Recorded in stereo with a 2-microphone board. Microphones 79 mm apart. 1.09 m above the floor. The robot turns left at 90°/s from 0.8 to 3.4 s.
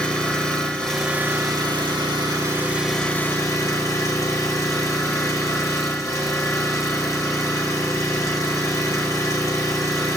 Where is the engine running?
10° left, 2.5 m; by 10.2 s 140° left, 2.5 m.